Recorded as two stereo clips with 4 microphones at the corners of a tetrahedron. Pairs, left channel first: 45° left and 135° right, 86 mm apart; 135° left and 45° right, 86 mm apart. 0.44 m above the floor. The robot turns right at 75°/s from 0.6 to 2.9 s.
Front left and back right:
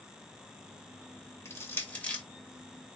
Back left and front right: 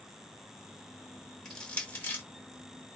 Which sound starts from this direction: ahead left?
Crushing, at 1.4 s.